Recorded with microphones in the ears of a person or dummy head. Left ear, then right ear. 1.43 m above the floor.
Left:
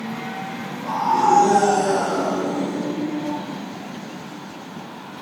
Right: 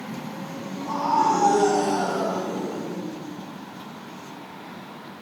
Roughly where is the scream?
Left.